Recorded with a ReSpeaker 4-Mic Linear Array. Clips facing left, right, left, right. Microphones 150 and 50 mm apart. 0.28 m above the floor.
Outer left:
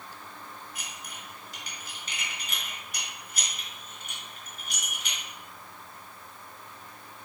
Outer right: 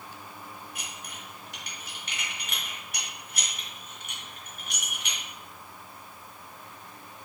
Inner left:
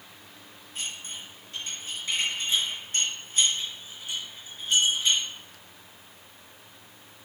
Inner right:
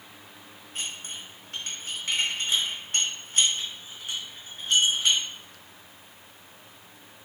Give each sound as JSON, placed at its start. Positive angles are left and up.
{"t": 0.8, "sound": "dishes clattering", "side_deg": -65, "distance_m": 1.8}